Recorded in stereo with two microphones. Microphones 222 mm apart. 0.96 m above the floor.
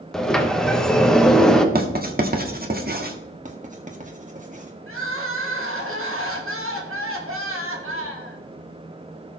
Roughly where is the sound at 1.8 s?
Right.